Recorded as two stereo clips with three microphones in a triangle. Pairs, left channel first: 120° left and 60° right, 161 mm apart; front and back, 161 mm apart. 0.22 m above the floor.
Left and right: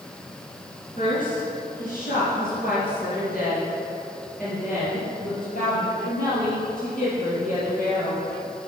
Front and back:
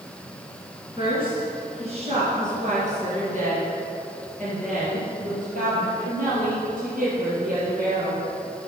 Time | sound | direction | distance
1.0 | a woman speaking | 125° left | 2.5 m